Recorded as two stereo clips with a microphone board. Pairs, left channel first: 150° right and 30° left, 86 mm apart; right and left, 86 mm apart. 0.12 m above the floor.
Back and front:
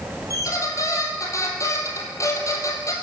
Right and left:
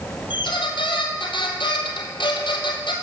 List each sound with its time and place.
0.3 s a squeak: 100° right, 1.6 m